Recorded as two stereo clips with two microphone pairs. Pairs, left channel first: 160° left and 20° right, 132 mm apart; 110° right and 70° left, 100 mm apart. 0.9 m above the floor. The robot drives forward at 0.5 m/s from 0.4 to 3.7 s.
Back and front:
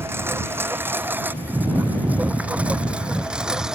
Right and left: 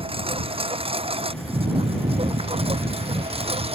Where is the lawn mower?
50° left; by 3.8 s 65° left.